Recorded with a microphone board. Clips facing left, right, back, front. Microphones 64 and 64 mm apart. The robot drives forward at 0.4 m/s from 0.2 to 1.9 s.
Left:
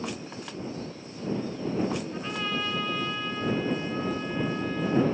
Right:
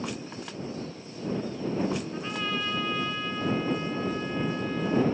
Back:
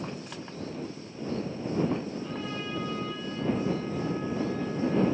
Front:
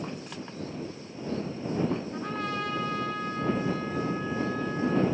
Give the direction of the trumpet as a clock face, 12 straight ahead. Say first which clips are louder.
Even, front 3 dB; 12 o'clock.